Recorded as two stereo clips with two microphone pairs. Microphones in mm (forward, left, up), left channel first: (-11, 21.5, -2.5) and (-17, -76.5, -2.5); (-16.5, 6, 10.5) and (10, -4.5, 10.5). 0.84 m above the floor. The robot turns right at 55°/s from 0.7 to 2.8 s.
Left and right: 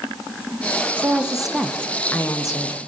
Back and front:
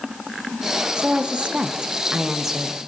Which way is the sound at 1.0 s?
35° right.